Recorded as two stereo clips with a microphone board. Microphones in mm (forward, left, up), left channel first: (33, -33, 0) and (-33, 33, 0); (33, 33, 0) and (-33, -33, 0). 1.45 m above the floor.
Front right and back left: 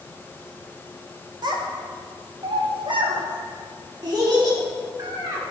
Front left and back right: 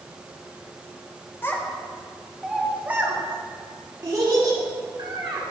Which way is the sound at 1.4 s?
110° left.